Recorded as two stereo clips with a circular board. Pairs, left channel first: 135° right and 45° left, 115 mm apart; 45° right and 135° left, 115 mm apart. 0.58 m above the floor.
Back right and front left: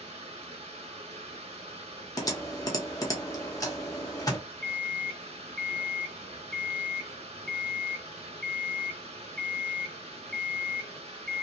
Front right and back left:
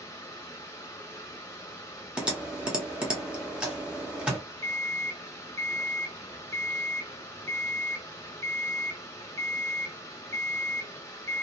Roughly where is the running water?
Ahead.